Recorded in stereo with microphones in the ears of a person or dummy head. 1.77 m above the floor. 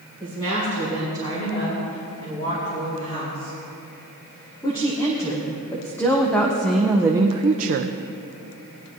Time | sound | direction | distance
0.2 | a woman speaking | 30° left (ahead or behind) | 4 m